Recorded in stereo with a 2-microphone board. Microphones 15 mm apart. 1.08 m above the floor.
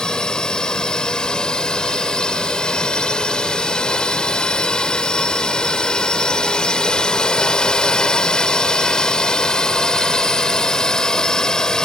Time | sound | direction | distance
0.0 | a drone | 60° left (ahead or behind) | ?